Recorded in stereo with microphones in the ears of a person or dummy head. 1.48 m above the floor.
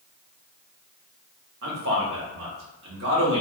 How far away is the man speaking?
About 1.0 m.